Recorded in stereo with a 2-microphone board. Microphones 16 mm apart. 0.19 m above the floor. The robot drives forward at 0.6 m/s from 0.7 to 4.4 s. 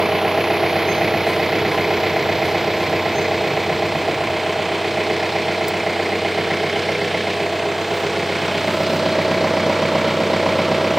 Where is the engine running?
25° right (ahead or behind); by 11.0 s 20° right (ahead or behind).